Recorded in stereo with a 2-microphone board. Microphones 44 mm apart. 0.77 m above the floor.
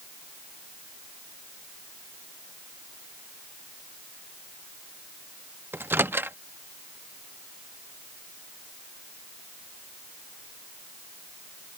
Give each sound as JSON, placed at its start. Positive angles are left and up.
{"t": 5.7, "sound": "a microwave", "side_deg": -60}